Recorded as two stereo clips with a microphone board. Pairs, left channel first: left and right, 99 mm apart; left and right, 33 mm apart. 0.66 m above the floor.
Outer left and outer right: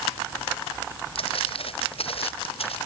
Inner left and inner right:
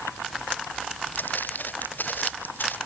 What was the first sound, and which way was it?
Footsteps, 65° left (ahead or behind).